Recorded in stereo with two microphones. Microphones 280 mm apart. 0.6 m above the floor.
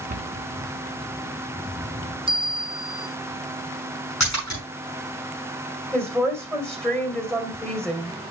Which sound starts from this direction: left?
A splash, at 4.2 s.